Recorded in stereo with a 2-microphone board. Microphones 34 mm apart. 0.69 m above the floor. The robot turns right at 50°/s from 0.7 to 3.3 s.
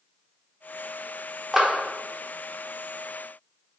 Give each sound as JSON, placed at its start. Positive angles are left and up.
{"t": 1.5, "sound": "a clap", "side_deg": -5, "distance_m": 0.8}